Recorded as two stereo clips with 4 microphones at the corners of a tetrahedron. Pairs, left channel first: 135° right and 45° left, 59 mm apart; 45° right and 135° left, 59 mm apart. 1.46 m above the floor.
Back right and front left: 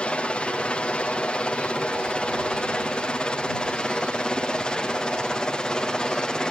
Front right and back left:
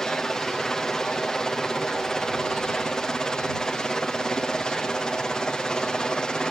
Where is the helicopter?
110° right; by 6.5 s 90° right.